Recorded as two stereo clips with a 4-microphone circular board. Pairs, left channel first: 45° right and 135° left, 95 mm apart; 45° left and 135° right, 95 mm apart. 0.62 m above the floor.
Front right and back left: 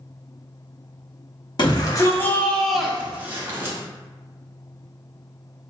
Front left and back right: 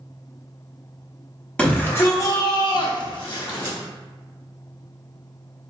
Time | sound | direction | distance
1.6 | a shout | 30° right | 1.0 m